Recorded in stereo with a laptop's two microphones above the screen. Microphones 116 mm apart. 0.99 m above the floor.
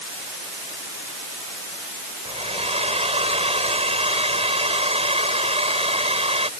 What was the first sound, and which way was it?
A hair dryer, 65° right (ahead or behind).